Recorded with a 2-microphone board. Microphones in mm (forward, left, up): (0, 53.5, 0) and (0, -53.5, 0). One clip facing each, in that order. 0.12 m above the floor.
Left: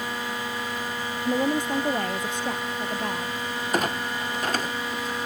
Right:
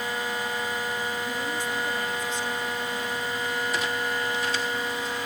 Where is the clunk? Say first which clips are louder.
Left 2 dB; 50° left (ahead or behind).